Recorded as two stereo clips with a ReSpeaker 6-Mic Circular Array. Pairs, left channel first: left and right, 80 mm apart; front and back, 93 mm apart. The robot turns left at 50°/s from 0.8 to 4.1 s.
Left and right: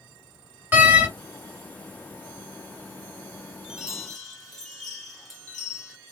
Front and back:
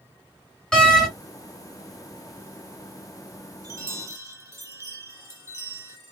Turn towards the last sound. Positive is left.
turn(degrees=170)